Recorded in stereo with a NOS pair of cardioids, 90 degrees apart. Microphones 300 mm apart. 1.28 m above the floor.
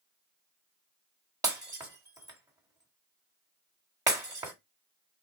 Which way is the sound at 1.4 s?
10° right.